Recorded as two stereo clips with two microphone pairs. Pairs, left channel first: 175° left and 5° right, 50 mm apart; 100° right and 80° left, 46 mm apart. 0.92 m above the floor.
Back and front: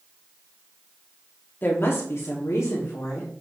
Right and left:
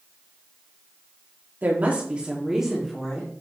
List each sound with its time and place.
1.6 s a woman speaking: 130° left, 1.5 m; by 3.3 s straight behind, 2 m